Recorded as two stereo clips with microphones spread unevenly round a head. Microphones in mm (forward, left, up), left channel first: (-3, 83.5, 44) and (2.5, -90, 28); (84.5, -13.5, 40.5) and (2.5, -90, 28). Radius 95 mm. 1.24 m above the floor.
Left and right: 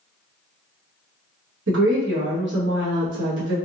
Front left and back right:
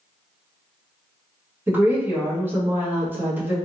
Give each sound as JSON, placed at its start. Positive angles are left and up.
{"t": 1.7, "sound": "a woman speaking", "azimuth_deg": -65, "distance_m": 1.7}